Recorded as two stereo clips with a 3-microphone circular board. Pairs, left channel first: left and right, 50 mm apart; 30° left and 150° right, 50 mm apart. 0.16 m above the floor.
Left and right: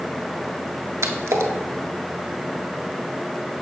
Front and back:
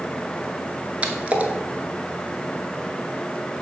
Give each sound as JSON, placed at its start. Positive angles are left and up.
{"t": 1.0, "sound": "a splash", "azimuth_deg": -85, "distance_m": 0.5}